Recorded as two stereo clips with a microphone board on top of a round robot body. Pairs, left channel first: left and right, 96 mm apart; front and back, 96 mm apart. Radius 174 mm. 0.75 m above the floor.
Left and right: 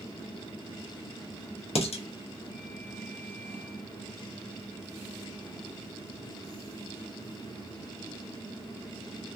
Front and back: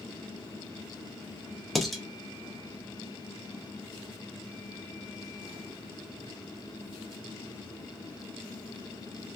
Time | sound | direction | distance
1.8 | dishes clattering | 90° left | 0.7 m